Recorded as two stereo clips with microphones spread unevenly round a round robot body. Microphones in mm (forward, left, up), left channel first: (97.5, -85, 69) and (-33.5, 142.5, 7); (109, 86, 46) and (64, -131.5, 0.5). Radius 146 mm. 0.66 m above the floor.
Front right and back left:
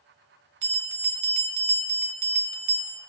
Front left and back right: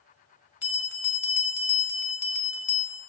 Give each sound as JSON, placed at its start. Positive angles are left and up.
{"t": 0.6, "sound": "a bell", "azimuth_deg": 115, "distance_m": 1.4}